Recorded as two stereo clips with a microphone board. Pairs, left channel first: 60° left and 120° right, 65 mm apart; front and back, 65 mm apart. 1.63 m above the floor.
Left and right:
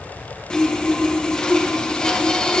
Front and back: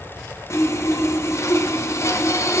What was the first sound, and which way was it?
Sawing, 15° right.